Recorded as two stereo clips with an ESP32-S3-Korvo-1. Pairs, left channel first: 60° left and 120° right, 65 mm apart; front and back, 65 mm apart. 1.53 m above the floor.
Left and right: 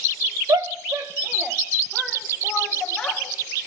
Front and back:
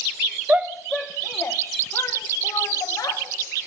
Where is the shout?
115° right, 1.0 m; by 3.2 s 20° right, 3.5 m.